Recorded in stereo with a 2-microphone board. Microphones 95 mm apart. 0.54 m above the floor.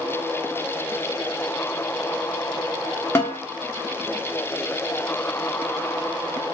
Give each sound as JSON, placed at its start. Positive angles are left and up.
{"t": 3.1, "sound": "a snare drum", "side_deg": 25, "distance_m": 1.3}